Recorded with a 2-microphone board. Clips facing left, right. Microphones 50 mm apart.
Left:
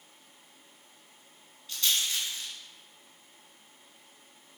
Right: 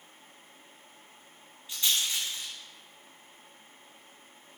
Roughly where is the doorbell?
I don't hear a doorbell.